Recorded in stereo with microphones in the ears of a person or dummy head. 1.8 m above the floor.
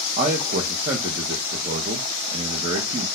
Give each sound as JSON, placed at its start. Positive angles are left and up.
{"t": 0.2, "sound": "a man speaking", "side_deg": -45, "distance_m": 0.7}